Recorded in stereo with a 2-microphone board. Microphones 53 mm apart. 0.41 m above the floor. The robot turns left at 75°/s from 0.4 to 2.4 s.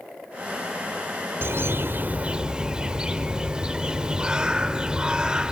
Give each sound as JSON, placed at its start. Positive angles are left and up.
{"t": 1.4, "sound": "a bird", "azimuth_deg": -85, "distance_m": 0.7}